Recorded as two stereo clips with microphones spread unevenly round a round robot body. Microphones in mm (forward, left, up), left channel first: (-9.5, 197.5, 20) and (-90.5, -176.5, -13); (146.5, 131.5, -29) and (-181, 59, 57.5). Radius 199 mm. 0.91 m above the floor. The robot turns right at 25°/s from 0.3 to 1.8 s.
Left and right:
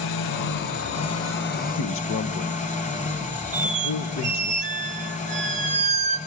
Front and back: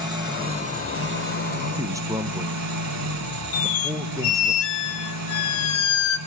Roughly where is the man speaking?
Left.